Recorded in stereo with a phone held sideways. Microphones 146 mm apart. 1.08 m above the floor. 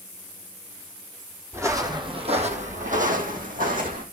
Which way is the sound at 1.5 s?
20° right (ahead or behind).